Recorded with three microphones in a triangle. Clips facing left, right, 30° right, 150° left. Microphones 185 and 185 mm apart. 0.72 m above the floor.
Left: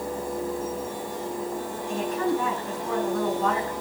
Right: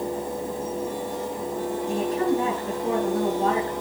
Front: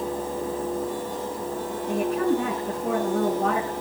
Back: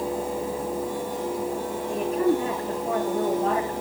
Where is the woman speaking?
35° right, 7.5 m.